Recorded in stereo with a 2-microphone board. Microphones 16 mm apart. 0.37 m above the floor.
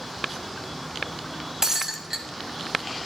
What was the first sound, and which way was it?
Breaking glass, 35° right (ahead or behind).